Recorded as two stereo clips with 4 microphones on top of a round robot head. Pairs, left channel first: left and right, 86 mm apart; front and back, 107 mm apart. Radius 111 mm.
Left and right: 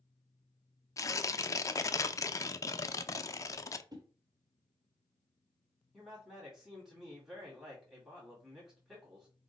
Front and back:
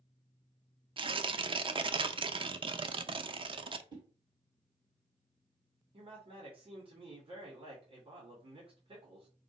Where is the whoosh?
130° right, 1.4 m.